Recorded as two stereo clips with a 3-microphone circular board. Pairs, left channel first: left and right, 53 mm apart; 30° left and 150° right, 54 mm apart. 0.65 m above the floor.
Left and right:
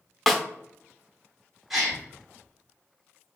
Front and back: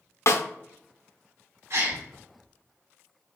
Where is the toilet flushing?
I don't hear a toilet flushing.